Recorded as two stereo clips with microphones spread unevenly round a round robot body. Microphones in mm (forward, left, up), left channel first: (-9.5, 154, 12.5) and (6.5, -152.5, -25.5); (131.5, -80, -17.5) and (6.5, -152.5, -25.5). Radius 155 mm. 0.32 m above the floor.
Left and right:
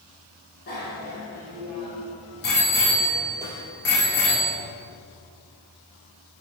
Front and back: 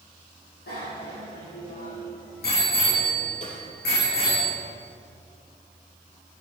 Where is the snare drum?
5° right, 4.5 m.